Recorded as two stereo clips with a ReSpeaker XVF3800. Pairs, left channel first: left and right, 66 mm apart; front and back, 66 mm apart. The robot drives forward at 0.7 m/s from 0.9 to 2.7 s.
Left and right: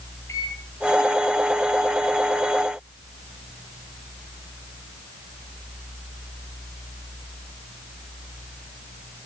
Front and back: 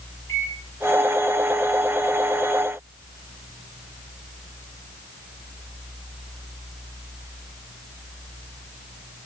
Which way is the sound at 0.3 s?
50° left.